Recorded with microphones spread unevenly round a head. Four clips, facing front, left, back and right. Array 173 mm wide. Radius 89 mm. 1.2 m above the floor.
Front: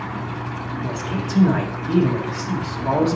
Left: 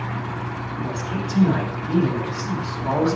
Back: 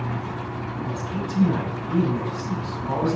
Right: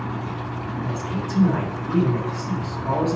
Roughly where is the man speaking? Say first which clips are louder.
Left 1 dB, front 3 dB; ahead.